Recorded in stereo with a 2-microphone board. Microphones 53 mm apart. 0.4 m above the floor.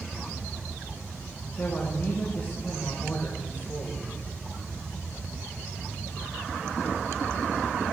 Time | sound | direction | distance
1.6 | a man speaking | 25° left (ahead or behind) | 4 m